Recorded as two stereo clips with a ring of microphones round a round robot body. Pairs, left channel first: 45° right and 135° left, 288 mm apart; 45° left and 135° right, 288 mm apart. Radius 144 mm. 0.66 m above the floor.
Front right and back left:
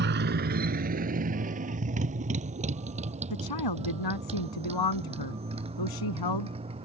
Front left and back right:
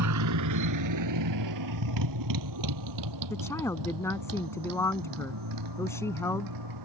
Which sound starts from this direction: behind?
A motorcycle, at 0.0 s.